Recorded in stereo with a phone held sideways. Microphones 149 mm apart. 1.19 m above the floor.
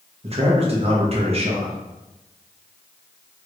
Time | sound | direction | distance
0.2 | a man speaking | 45° right (ahead or behind) | 0.9 m